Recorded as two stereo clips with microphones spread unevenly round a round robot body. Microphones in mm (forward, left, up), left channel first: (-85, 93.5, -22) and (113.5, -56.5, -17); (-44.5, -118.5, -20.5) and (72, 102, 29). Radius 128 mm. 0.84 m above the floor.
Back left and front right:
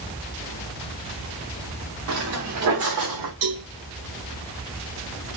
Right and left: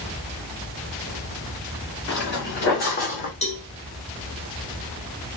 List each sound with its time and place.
2.1 s footsteps: 70° right, 5 m; by 3.3 s 55° right, 3.5 m
3.4 s a cowbell: 50° right, 4 m